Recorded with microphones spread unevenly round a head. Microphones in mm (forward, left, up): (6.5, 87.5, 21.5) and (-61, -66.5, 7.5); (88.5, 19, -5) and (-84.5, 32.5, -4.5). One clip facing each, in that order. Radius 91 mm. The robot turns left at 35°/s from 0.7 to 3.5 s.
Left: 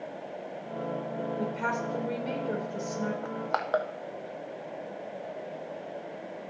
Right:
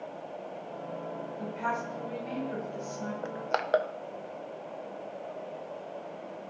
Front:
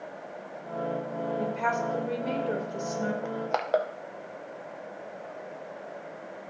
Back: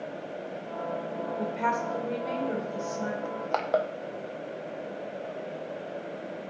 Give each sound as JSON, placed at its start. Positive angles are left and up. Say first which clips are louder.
{"t": 1.4, "sound": "a woman speaking", "louder": "left 3 dB, even", "azimuth_deg": 95, "distance_m": 4.0}
{"t": 3.2, "sound": "crushing", "louder": "even, even", "azimuth_deg": -75, "distance_m": 0.7}